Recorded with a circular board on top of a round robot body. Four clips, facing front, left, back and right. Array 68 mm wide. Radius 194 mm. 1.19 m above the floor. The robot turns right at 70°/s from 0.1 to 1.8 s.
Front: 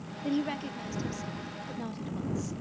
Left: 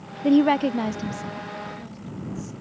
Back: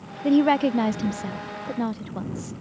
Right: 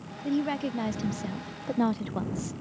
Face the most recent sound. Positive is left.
turn(degrees=-125)